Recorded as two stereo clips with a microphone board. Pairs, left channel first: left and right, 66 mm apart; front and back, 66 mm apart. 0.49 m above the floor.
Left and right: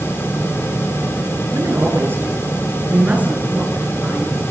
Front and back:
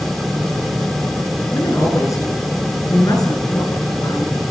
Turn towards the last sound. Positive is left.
turn(degrees=-15)